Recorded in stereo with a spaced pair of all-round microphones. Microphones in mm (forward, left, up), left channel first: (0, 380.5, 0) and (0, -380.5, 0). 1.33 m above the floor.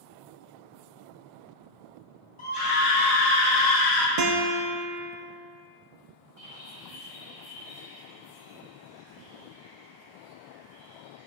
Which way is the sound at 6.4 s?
45° left (ahead or behind).